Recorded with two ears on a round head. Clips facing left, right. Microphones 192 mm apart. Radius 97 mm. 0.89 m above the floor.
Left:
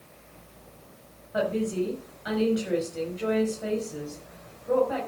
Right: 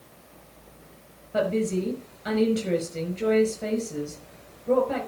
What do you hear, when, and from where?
1.3 s a woman speaking: 35° right (ahead or behind), 5.5 m